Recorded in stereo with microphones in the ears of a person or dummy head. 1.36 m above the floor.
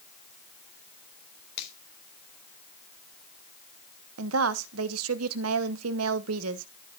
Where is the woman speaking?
85° right, 1.1 m.